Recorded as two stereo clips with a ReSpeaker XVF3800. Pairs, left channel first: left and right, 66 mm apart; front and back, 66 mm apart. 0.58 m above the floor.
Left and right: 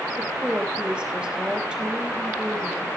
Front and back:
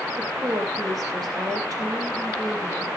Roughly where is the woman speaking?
Behind.